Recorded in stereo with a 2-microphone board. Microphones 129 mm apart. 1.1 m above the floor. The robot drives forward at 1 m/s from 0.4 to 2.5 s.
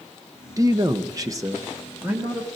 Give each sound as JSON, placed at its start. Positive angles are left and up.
{"t": 0.6, "sound": "a man speaking", "side_deg": -25, "distance_m": 0.8}